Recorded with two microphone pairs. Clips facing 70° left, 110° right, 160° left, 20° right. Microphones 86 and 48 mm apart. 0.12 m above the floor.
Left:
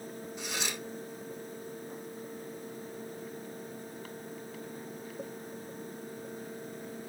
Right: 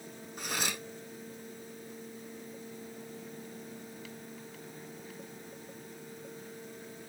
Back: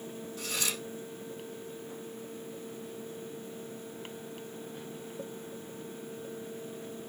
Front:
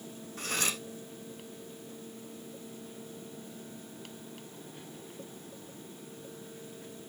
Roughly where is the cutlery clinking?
Ahead right.